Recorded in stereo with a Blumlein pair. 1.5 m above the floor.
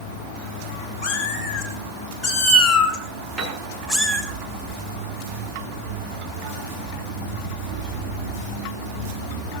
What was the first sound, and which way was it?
A cat meowing, 30° left.